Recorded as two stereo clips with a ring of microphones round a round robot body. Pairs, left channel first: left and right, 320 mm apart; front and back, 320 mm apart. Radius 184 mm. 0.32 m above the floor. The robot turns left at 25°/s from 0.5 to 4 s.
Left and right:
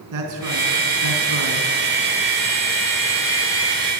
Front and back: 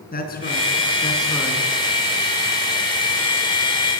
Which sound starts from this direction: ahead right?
A man speaking, at 0.1 s.